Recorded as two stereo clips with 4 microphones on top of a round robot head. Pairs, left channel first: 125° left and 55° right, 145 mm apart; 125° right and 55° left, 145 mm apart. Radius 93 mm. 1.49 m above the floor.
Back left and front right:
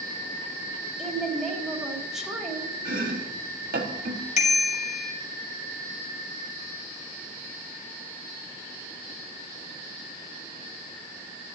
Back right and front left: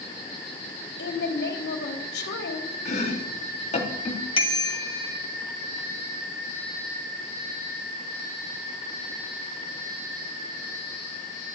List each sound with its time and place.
1.0 s a woman speaking: 140° right, 3.5 m
2.9 s chopping: 85° right, 4 m
4.4 s a bicycle bell: 175° left, 2.5 m